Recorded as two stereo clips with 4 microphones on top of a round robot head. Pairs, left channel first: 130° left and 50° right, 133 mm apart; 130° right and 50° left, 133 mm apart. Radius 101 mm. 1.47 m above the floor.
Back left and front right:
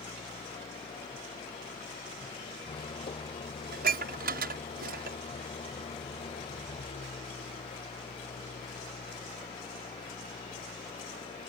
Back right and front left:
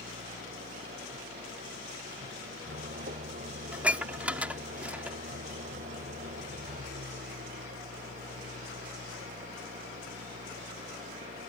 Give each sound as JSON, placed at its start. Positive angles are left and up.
{"t": 0.0, "sound": "an engine running", "azimuth_deg": 80}
{"t": 3.7, "sound": "dishes clattering", "azimuth_deg": -35}